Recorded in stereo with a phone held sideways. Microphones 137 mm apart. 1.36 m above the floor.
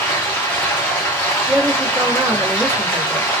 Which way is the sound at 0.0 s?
20° left (ahead or behind).